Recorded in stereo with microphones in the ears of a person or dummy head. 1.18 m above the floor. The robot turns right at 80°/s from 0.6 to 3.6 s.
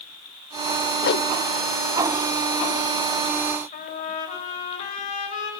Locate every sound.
1.0 s a whoosh: 50° left (ahead or behind), 1.0 m; by 1.3 s 70° left (ahead or behind), 1.0 m
3.7 s a trumpet: 45° left (ahead or behind), 6.5 m